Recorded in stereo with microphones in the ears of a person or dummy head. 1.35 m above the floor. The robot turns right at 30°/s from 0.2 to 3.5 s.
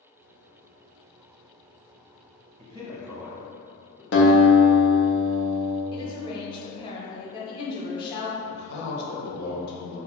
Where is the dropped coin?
I don't hear a dropped coin.